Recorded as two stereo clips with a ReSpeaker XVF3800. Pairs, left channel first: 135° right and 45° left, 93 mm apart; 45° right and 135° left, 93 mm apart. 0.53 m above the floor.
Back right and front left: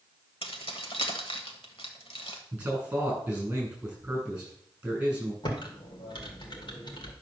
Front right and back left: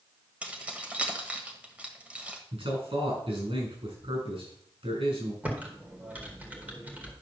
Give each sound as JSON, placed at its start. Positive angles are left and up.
{"t": 0.4, "sound": "keys jangling", "azimuth_deg": -150, "distance_m": 1.4}
{"t": 2.5, "sound": "a man speaking", "azimuth_deg": 120, "distance_m": 6.0}
{"t": 5.4, "sound": "typing on a keyboard", "azimuth_deg": -155, "distance_m": 1.9}